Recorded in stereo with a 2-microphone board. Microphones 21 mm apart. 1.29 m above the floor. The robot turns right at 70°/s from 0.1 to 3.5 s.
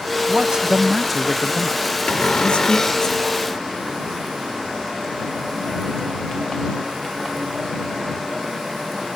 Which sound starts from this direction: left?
A cupboard door, at 2.1 s.